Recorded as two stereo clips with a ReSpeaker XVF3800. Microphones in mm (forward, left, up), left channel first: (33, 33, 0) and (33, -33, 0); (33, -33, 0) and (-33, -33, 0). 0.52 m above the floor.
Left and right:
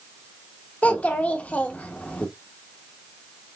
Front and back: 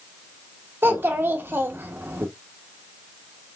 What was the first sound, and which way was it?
A child speaking, 145° left.